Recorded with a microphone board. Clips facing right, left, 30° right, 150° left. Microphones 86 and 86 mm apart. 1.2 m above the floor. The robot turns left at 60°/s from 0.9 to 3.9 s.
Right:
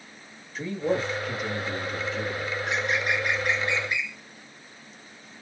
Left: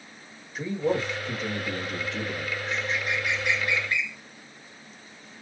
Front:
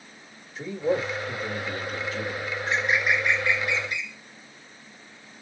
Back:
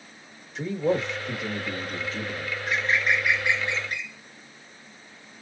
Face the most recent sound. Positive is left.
turn(degrees=-165)